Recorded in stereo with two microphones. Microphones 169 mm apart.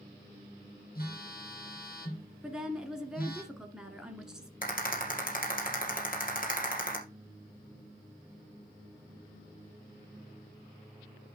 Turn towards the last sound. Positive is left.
turn(degrees=55)  # may be behind; listen again after turning